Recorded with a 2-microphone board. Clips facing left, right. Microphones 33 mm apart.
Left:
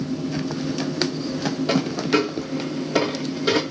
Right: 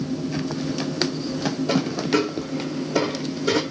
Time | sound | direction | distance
1.7 | a dropped coin | 55° left (ahead or behind) | 1.8 m